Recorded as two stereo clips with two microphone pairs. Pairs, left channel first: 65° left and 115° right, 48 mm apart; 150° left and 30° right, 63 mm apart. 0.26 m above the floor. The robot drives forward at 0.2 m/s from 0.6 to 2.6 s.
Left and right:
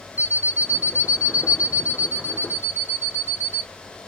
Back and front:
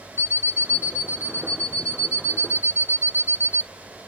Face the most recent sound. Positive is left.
turn(degrees=-165)